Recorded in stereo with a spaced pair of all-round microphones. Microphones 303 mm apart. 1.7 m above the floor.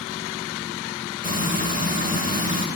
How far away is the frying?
About 2.5 m.